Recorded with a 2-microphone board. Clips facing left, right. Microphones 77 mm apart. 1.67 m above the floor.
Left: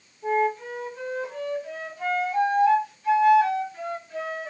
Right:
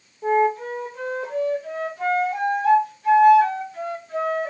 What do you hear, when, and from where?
0.2 s a flute: 65° right (ahead or behind), 1.2 m